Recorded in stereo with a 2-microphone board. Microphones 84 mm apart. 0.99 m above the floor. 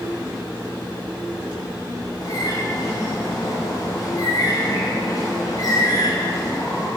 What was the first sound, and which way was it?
A bird, 50° left (ahead or behind).